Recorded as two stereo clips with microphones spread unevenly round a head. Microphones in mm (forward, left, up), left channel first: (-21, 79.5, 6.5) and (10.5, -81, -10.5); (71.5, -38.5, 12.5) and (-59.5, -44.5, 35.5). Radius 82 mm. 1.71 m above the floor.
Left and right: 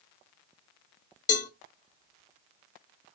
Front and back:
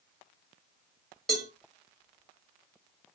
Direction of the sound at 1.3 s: 100° left.